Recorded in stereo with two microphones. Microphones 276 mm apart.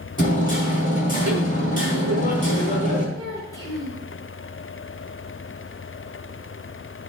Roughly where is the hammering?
Left.